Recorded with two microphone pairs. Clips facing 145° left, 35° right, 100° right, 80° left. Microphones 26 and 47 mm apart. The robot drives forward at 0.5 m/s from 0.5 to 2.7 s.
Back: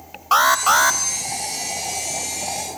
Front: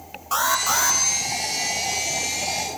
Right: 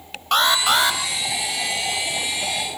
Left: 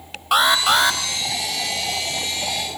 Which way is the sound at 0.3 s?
165° left.